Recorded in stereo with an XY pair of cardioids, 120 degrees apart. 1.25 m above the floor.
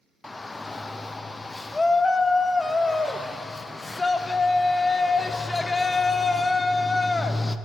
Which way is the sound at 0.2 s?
15° left.